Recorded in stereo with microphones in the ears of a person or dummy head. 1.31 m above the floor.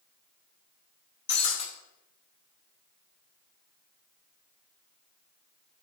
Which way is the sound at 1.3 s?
30° left (ahead or behind).